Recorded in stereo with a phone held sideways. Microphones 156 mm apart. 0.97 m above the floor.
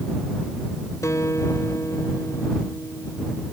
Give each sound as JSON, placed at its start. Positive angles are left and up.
{"t": 1.0, "sound": "a guitar", "side_deg": 20}